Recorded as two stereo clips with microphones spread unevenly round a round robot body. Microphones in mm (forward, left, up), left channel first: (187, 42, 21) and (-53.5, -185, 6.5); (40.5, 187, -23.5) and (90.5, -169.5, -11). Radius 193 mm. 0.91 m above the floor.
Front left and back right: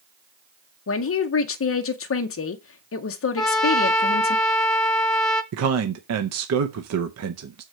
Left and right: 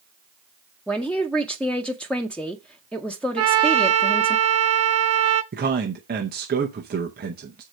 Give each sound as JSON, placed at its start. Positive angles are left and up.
{"t": 0.9, "sound": "a man speaking", "azimuth_deg": 15, "distance_m": 0.6}
{"t": 3.4, "sound": "a trumpet", "azimuth_deg": -45, "distance_m": 0.8}
{"t": 5.5, "sound": "a man speaking", "azimuth_deg": -145, "distance_m": 0.6}